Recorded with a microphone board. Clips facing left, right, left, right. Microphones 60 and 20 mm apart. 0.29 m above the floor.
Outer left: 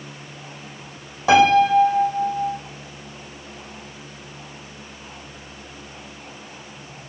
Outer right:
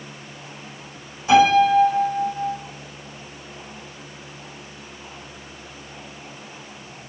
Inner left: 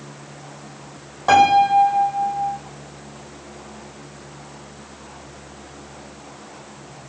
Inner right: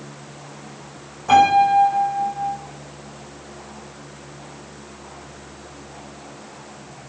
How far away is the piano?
About 4 m.